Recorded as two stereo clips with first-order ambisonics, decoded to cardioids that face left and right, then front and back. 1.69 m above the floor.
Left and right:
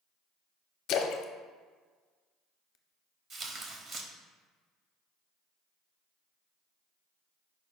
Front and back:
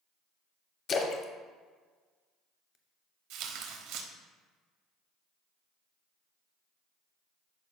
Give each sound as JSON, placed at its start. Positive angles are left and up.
{"t": 0.9, "sound": "a splash", "azimuth_deg": 55, "distance_m": 0.6}
{"t": 3.3, "sound": "tearing paper", "azimuth_deg": -155, "distance_m": 1.0}